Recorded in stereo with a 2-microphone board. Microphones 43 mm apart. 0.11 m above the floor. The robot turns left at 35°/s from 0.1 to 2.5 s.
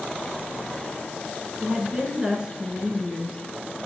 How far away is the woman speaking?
About 1.1 m.